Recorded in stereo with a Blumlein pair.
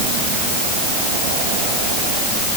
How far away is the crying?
I don't hear crying.